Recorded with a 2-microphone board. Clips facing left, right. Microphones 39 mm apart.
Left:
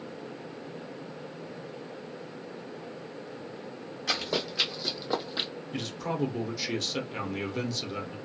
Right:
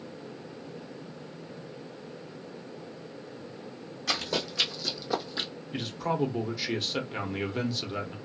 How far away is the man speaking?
About 0.9 m.